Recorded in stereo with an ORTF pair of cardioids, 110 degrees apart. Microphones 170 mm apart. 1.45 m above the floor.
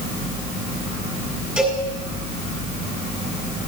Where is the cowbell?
5° right, 7 m.